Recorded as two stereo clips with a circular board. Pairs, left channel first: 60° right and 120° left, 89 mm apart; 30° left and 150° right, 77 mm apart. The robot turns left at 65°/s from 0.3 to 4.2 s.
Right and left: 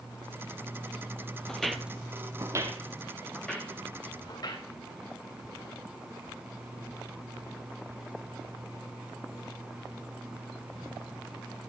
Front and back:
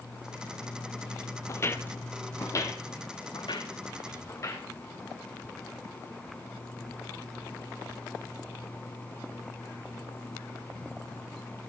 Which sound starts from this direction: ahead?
Footsteps, at 1.5 s.